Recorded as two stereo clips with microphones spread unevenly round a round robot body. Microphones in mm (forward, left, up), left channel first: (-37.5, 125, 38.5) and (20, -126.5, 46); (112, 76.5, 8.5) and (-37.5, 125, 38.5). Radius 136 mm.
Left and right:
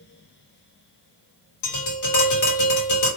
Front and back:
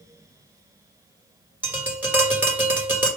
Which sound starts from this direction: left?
Tapping, at 1.6 s.